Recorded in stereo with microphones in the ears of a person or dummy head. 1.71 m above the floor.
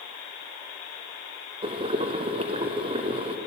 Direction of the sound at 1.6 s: 25° right (ahead or behind).